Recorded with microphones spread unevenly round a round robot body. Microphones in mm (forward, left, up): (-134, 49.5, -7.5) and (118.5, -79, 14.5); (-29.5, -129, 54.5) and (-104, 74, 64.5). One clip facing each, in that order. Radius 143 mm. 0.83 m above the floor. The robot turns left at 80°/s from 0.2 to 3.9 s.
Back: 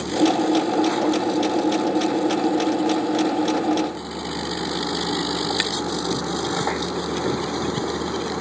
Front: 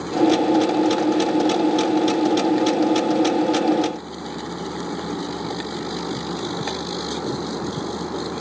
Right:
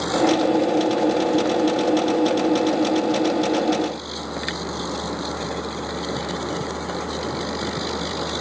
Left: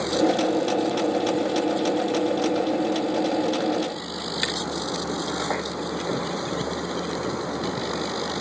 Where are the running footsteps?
I don't hear running footsteps.